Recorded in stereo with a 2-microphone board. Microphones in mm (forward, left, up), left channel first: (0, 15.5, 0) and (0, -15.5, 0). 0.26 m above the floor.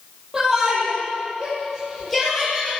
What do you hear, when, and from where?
0.3 s a shout: 10° right (ahead or behind), 9 m; by 2.7 s 10° left (ahead or behind), 7.5 m